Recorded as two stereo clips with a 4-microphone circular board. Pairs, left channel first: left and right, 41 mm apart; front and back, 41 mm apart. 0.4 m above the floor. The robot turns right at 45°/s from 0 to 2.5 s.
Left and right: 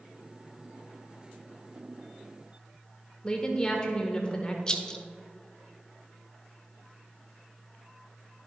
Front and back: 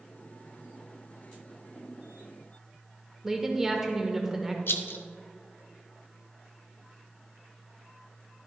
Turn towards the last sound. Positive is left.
turn(degrees=20)